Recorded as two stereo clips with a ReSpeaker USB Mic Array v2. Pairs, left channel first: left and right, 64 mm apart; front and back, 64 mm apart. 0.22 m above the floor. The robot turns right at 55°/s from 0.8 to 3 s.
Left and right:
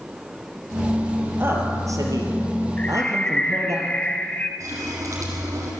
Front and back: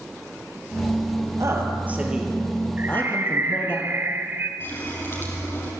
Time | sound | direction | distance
1.4 | a man speaking | 145° right | 4.5 m
2.8 | a bird | 145° left | 1.4 m
4.6 | a running tap | 50° right | 5.5 m